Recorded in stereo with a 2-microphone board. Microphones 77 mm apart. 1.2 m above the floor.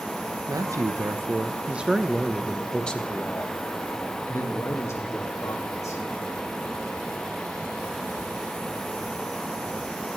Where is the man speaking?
50° right (ahead or behind), 1.2 m; by 6.0 s 45° left (ahead or behind), 2.5 m.